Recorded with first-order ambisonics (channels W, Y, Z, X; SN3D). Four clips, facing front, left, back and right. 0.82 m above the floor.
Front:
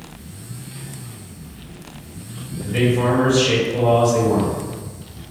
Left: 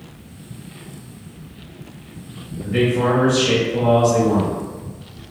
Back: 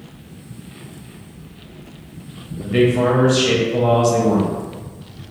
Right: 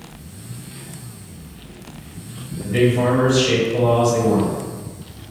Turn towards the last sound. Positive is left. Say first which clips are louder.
# right 1 dB, back 3 dB
turn(degrees=180)